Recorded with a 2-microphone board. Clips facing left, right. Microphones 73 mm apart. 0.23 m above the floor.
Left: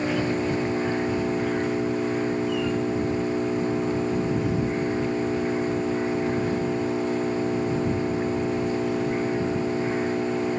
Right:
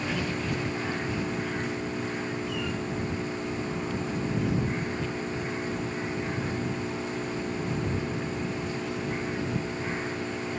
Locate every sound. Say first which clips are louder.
0.0 s an engine running: left 6 dB; 30° left (ahead or behind)